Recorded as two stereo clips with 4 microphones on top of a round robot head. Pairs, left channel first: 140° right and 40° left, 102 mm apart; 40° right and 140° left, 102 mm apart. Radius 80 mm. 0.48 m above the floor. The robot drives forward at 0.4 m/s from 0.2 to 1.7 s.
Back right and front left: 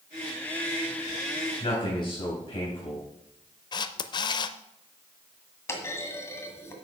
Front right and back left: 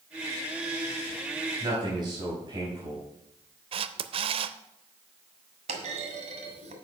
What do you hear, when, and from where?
1.6 s a man speaking: 175° right, 4 m
3.7 s a camera shutter: 175° left, 0.5 m
5.7 s a clunk: 155° left, 1.8 m